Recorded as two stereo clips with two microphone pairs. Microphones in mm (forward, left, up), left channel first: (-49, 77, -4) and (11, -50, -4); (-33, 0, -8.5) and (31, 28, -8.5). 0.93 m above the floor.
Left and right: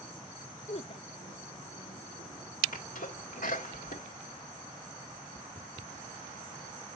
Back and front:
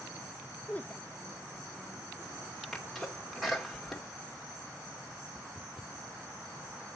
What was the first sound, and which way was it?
A woman speaking, 140° left.